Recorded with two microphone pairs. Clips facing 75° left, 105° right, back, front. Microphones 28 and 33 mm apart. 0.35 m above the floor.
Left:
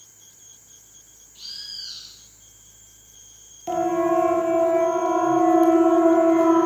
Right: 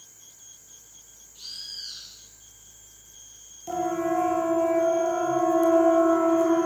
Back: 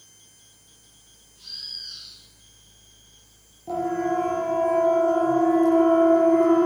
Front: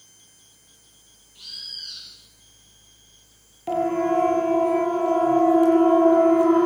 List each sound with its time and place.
1.4 s a bird: 5° left, 9 m
3.7 s a siren: 15° left, 6.5 m; by 6.7 s 20° left, 8 m